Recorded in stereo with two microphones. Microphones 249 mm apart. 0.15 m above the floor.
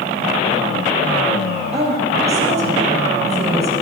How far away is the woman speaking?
About 3.5 m.